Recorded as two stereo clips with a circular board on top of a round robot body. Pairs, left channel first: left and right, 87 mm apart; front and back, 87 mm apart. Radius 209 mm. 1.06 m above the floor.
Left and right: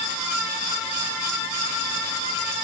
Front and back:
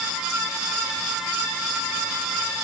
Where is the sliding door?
No sliding door in this recording.